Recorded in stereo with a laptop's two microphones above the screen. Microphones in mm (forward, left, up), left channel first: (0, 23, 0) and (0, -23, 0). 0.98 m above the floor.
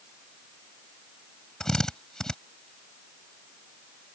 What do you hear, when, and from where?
1.6 s a drill: 15° left (ahead or behind)